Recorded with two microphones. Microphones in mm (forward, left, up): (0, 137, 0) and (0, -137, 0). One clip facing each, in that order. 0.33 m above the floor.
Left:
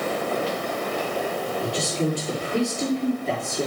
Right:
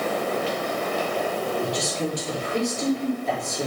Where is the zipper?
I don't hear a zipper.